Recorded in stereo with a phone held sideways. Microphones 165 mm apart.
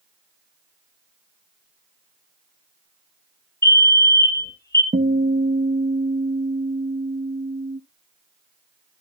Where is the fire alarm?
15° left (ahead or behind), 1.8 m.